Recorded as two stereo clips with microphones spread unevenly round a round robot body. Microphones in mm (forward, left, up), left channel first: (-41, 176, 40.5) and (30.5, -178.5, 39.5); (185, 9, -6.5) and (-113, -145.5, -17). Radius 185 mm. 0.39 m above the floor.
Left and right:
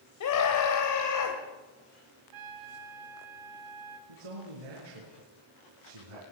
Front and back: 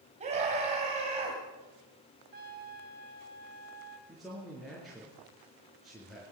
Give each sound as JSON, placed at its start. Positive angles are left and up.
{"t": 0.2, "sound": "a scream", "azimuth_deg": 135, "distance_m": 2.0}
{"t": 2.3, "sound": "a trumpet", "azimuth_deg": -95, "distance_m": 2.5}
{"t": 4.1, "sound": "a man speaking", "azimuth_deg": -65, "distance_m": 5.5}